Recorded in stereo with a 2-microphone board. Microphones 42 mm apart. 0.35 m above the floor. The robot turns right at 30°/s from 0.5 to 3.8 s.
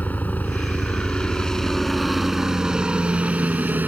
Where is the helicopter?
135° left; by 3.9 s 125° right.